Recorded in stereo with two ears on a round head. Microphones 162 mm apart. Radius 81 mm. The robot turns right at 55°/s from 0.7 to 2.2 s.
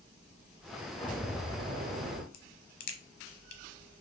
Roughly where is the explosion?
Behind.